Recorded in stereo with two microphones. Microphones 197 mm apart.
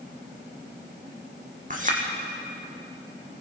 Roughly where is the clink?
Right.